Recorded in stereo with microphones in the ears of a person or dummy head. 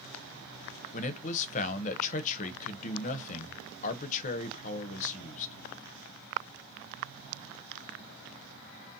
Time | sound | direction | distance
0.9 | a man speaking | 45° left (ahead or behind) | 0.6 m